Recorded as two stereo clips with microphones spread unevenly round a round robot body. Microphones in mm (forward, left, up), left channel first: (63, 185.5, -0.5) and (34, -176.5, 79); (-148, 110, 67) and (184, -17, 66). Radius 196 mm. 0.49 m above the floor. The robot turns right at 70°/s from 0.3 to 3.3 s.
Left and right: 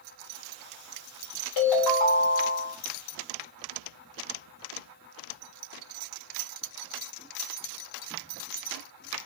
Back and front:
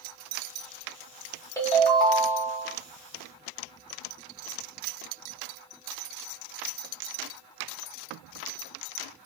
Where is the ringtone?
75° left, 1.1 m; by 2.8 s 160° left, 1.1 m.